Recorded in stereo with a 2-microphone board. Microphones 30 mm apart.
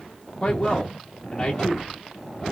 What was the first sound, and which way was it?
A man speaking, 20° left (ahead or behind).